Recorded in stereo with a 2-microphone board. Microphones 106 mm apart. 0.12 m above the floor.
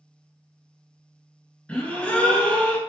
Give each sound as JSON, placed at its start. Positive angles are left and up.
{"t": 1.7, "sound": "a gasp", "side_deg": 10, "distance_m": 0.7}